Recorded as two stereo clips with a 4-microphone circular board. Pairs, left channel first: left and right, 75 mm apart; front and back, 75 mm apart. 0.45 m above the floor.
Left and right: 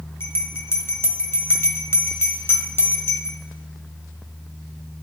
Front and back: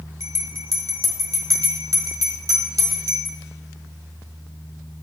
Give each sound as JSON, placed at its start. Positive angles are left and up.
{"t": 0.2, "sound": "a bell", "azimuth_deg": 145, "distance_m": 1.6}